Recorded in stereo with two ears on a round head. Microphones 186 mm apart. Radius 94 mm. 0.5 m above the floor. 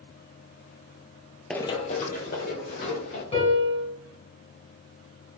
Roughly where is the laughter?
I don't hear laughter.